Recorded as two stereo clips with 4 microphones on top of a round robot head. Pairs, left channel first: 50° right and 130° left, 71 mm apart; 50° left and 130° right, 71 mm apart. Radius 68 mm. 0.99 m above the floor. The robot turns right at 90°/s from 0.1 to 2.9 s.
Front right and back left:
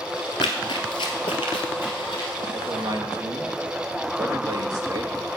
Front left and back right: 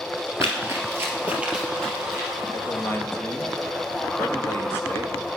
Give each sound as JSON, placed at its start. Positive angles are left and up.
{"t": 0.4, "sound": "running footsteps", "azimuth_deg": -75, "distance_m": 1.4}
{"t": 2.5, "sound": "a man speaking", "azimuth_deg": 70, "distance_m": 1.7}